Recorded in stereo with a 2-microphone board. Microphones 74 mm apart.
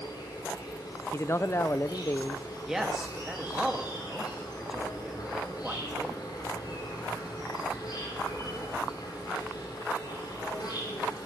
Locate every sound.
0.0 s an insect: 80° left, 6 m
1.1 s a man speaking: 35° left (ahead or behind), 0.5 m
2.6 s a man speaking: 5° right (ahead or behind), 2 m